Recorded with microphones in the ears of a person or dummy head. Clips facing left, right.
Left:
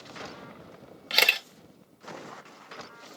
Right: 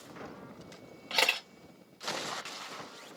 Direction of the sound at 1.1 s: 25° left (ahead or behind).